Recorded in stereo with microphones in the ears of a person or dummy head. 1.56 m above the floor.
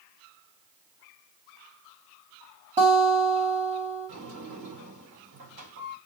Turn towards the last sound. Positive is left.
turn(degrees=-50)  # may be behind; listen again after turning